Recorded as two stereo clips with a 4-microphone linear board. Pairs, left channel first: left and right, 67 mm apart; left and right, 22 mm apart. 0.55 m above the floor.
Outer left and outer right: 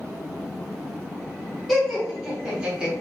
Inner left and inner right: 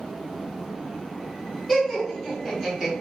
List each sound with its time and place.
1.7 s laughter: centre (ahead or behind), 1.9 m; by 2.9 s 20° right (ahead or behind), 2 m